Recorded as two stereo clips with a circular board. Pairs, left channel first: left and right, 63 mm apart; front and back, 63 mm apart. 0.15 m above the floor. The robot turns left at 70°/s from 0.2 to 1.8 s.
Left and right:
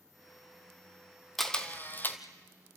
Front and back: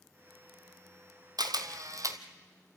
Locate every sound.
1.4 s a camera shutter: straight behind, 1.2 m; by 2.2 s 150° left, 1.2 m